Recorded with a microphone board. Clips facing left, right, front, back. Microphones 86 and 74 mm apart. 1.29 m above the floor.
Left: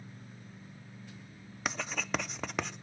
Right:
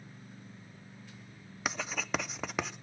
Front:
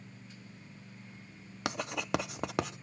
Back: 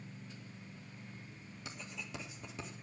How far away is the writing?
About 0.6 m.